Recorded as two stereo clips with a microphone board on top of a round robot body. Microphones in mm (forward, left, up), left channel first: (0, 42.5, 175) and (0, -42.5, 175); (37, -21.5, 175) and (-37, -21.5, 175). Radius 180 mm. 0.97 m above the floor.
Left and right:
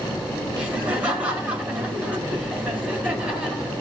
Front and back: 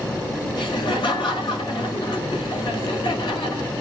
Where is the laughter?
15° right, 6.5 m.